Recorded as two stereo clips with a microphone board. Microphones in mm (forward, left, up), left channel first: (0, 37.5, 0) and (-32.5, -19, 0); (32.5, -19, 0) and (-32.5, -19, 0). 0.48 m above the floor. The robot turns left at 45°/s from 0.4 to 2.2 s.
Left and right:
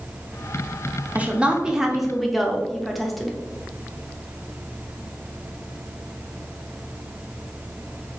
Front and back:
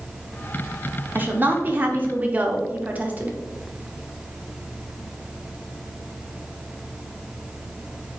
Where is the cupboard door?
No cupboard door in this recording.